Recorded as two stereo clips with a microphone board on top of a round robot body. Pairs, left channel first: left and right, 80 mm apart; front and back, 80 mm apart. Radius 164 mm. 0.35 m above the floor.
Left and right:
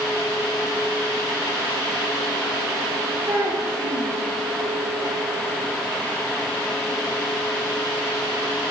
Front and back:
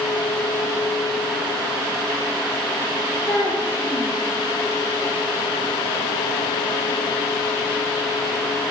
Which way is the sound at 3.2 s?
25° right.